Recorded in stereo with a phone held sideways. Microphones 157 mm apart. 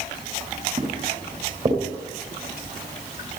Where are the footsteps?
35° right (ahead or behind), 7.5 m; by 1.8 s 40° right (ahead or behind), 7.5 m.